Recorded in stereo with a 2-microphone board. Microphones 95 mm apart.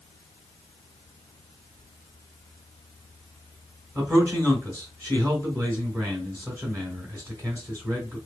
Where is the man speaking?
25° right (ahead or behind), 1.3 m.